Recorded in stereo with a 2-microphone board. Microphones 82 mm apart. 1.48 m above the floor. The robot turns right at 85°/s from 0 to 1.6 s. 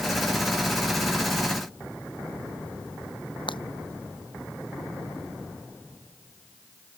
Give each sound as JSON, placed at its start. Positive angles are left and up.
{"t": 3.5, "sound": "breaking glass", "side_deg": 80}